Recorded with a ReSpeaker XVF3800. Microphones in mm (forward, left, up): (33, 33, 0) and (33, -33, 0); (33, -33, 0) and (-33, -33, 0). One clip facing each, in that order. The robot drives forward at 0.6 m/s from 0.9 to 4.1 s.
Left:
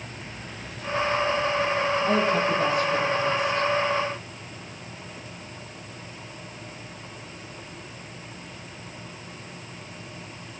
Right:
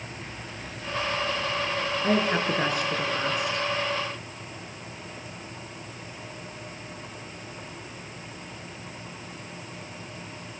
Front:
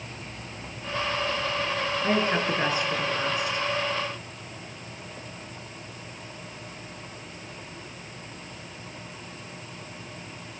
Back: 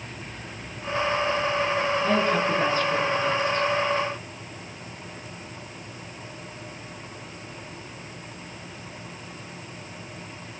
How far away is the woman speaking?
About 5.5 m.